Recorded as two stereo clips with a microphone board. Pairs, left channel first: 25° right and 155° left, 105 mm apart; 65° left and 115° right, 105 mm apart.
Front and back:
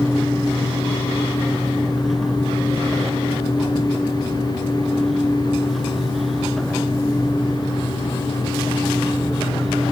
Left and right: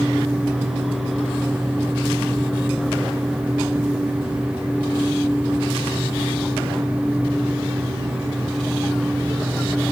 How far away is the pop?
I don't hear a pop.